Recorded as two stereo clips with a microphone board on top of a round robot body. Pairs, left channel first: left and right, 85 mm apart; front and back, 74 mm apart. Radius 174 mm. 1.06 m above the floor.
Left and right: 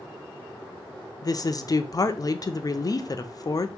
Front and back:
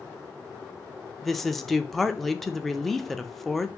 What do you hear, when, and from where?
1.2 s a woman speaking: 85° left, 0.6 m